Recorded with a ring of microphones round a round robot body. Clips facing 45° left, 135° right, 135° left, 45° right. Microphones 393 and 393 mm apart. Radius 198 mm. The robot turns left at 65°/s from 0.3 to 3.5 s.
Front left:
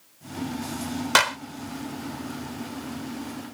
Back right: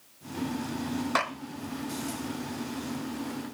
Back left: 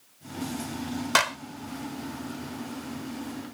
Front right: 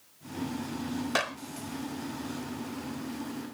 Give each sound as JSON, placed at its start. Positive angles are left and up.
{"t": 1.1, "sound": "a clap", "azimuth_deg": 75}